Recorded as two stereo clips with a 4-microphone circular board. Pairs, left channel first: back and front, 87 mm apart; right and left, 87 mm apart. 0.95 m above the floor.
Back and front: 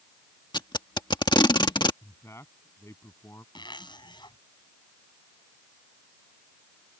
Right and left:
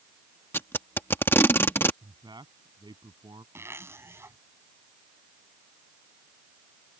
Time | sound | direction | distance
0.5 | tape being pulled | 155° right | ?
2.0 | a man speaking | 125° left | ?
3.5 | a zipper | 150° left | ?